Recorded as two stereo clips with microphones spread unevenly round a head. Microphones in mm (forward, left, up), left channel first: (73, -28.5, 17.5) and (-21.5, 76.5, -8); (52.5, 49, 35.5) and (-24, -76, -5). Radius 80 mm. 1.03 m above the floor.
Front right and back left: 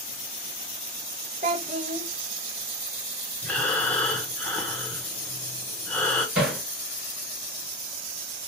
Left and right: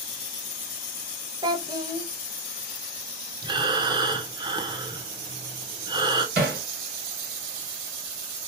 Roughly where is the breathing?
Behind right.